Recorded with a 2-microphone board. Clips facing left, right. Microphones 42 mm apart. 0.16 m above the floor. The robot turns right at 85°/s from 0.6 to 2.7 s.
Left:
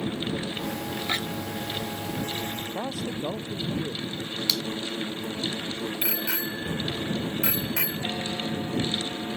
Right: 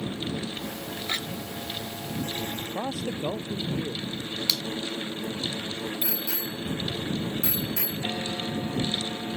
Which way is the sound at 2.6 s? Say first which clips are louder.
Even; 35° right (ahead or behind).